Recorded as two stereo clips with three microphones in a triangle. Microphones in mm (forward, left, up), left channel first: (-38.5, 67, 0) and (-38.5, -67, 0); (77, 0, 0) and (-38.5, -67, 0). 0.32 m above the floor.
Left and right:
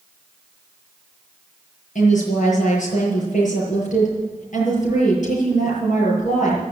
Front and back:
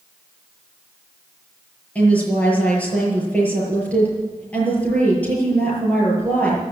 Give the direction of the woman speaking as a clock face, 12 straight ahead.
8 o'clock.